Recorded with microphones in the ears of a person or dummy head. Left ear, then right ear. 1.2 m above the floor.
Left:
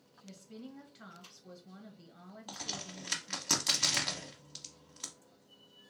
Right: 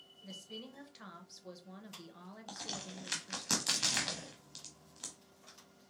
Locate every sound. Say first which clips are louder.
0.2 s a woman speaking: right 3 dB; 20° right (ahead or behind), 0.8 m
2.5 s a crack: left 3 dB; 5° left (ahead or behind), 0.8 m